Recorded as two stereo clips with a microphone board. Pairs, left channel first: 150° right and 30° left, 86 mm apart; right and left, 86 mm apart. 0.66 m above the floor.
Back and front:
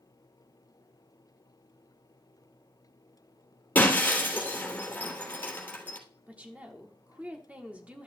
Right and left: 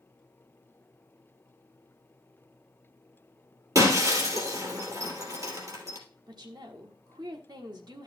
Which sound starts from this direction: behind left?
Breaking glass, at 3.8 s.